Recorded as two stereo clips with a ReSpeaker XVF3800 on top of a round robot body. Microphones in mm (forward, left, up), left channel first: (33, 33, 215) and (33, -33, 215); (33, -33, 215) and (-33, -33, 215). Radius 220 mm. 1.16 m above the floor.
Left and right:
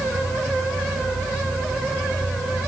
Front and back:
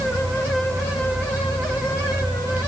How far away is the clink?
I don't hear a clink.